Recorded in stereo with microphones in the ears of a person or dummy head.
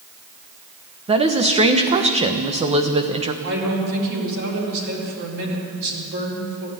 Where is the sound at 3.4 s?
75° right (ahead or behind), 4 m.